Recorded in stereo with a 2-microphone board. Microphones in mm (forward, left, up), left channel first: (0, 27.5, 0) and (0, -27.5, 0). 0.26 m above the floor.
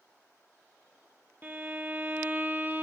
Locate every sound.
1.4 s a violin: 35° right (ahead or behind), 1.1 m